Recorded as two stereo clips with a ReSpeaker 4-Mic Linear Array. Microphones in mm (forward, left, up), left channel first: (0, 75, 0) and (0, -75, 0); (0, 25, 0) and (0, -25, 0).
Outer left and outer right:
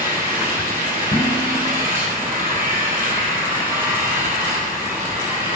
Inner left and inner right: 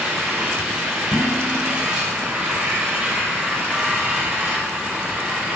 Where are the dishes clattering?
50° left (ahead or behind), 7.5 m.